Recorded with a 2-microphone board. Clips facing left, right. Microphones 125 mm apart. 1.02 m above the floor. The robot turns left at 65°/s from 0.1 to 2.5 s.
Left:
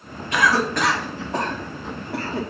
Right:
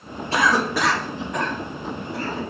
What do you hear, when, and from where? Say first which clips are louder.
0.3 s a cough: even; 35° right (ahead or behind), 0.8 m; by 2.4 s 70° left (ahead or behind), 0.8 m